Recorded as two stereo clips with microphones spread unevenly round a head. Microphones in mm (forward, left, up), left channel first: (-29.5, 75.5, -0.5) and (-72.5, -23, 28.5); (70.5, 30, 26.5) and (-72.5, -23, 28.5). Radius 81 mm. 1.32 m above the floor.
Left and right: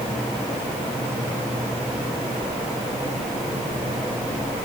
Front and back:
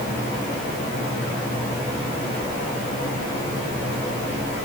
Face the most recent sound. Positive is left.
No sound to turn to.